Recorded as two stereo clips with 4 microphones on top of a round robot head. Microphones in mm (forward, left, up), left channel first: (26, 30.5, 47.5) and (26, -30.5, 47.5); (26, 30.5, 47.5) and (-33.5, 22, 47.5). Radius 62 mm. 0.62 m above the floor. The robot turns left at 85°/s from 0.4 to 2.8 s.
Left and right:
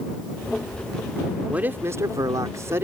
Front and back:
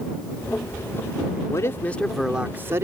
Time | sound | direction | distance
1.5 | a man speaking | 25° right | ?